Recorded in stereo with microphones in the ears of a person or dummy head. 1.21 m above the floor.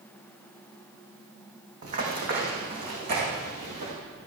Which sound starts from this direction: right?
Running footsteps, at 1.8 s.